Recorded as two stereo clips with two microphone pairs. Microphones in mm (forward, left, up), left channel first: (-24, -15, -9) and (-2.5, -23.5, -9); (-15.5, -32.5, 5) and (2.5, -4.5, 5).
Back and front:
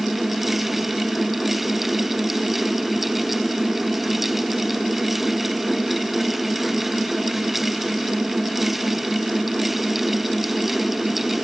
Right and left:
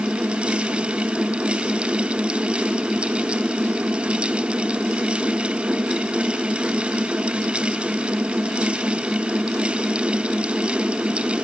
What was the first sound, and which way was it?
Only background noise.